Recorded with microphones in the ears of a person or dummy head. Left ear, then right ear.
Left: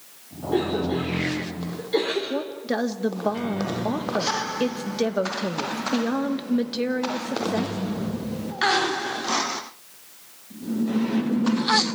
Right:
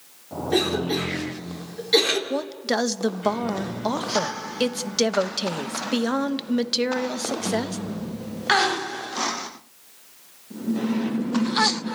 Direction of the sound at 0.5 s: 70° right (ahead or behind).